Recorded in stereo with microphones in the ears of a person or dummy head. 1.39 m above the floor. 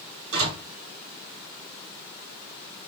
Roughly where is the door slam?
Right.